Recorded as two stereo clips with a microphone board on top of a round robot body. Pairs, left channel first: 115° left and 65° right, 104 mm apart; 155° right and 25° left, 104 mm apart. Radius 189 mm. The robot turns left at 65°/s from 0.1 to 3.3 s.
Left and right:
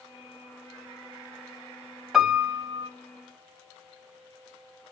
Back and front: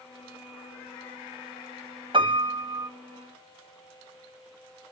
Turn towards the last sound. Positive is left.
turn(degrees=-60)